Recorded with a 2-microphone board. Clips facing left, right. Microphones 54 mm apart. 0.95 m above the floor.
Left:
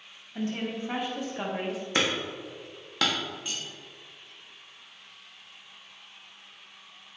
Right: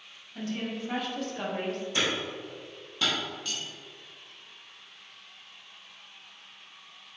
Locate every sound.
0.3 s a woman speaking: 30° left (ahead or behind), 1.7 m; by 1.8 s 5° left (ahead or behind), 1.0 m
1.9 s hammering: 75° left (ahead or behind), 1.1 m
3.5 s cutlery clinking: 20° left (ahead or behind), 2 m